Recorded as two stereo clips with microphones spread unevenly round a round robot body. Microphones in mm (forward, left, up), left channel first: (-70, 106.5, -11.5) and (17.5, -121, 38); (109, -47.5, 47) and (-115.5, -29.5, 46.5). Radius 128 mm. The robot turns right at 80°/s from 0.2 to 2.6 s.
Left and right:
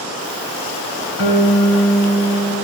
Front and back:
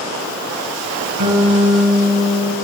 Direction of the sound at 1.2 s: 155° left.